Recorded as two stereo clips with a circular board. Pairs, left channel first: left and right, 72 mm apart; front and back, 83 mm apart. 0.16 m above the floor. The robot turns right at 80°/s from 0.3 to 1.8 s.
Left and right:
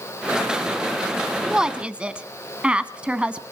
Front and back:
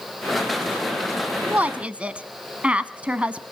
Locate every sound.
1.4 s a woman speaking: 160° right, 1.0 m; by 3.4 s 135° right, 1.0 m